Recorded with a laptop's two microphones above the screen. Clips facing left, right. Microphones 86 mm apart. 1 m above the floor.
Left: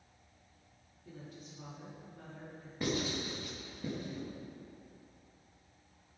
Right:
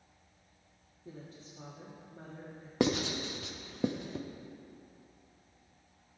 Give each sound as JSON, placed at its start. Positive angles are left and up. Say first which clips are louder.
{"t": 1.1, "sound": "a woman speaking", "louder": "right 1 dB", "side_deg": -30, "distance_m": 2.5}
{"t": 2.8, "sound": "writing", "louder": "right 5 dB", "side_deg": -80, "distance_m": 1.0}